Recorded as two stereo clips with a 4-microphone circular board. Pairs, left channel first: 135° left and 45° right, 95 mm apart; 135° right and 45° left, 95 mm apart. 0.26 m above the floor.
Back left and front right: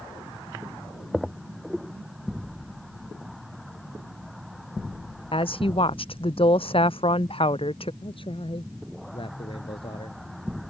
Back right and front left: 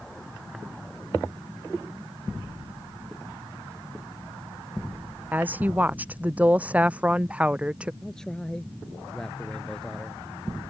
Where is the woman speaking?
115° left; by 7.9 s 125° left.